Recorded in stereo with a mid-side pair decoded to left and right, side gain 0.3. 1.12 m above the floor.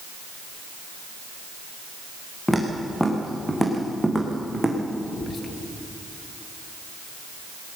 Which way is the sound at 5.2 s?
60° left.